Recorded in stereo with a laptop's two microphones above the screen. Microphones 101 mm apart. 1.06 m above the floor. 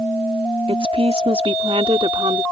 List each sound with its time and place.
0.7 s a woman speaking: 75° right (ahead or behind); by 2.4 s 60° right (ahead or behind)